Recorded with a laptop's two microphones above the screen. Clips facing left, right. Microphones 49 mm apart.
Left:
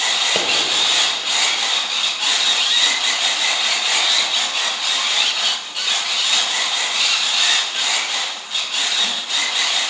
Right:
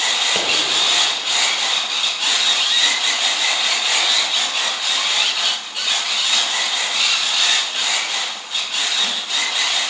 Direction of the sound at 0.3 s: 20° left (ahead or behind).